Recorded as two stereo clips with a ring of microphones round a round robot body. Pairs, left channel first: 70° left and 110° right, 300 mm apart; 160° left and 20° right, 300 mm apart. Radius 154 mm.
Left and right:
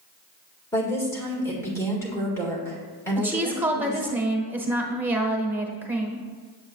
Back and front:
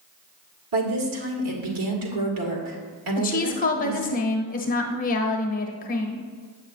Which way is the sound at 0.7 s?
15° right.